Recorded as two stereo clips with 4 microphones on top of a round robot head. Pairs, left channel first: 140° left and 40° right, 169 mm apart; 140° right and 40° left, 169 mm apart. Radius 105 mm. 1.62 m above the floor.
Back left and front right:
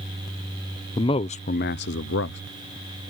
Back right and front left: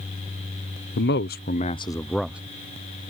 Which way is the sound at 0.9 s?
155° right.